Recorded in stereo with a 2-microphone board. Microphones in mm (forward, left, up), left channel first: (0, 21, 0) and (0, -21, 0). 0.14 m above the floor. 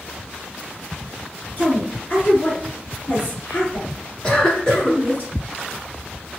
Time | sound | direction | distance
1.6 | a woman speaking | 40° left (ahead or behind) | 1.8 m
4.2 | a cough | 20° left (ahead or behind) | 1.1 m